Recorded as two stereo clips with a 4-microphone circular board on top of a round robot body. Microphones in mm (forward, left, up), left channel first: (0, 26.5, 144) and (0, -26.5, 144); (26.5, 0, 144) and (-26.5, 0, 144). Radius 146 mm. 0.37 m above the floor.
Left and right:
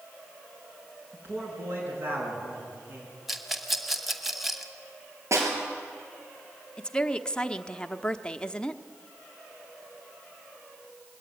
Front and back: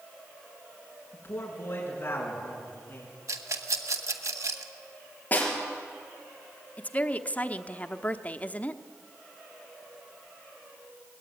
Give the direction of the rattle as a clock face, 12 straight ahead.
6 o'clock.